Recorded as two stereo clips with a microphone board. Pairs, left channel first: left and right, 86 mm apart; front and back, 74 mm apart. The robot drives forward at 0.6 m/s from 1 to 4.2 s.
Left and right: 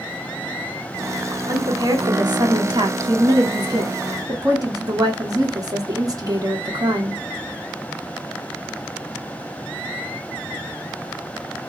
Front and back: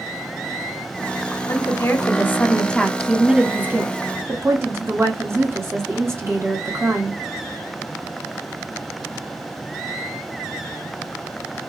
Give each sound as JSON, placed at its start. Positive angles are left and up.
{"t": 1.5, "sound": "a woman speaking", "azimuth_deg": -45, "distance_m": 1.3}